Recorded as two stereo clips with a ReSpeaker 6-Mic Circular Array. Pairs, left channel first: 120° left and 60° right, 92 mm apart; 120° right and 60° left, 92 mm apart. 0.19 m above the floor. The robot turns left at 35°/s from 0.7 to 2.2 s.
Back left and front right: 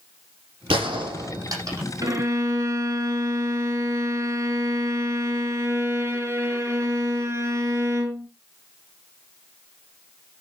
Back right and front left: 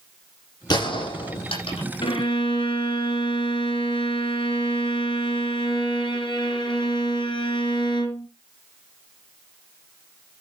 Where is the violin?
110° right, 2.5 m; by 8.3 s 115° right, 2.5 m.